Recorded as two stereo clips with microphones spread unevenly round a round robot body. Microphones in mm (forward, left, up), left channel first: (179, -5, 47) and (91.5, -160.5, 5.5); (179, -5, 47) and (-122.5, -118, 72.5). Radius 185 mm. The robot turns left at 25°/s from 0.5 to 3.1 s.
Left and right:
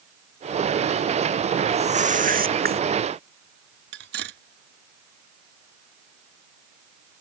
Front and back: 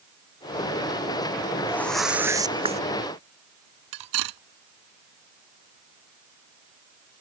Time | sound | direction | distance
1.7 | a whoosh | 60° right | ?
3.9 | cutlery clinking | 150° right | ?